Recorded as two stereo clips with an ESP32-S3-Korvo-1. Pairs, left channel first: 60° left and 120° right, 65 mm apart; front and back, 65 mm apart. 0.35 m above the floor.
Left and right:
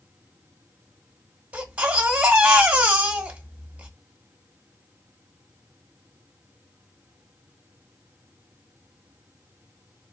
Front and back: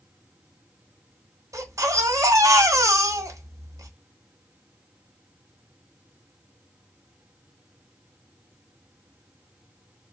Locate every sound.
1.5 s a baby crying: 175° left, 1.2 m